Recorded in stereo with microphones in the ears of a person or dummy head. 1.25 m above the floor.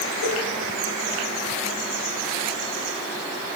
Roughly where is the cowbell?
Left.